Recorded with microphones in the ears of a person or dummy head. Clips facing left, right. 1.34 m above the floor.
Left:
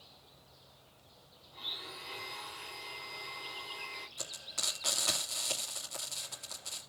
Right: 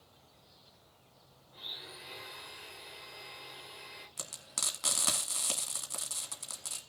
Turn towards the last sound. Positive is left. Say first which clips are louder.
# right 1 dB
turn(degrees=-45)  # may be behind; listen again after turning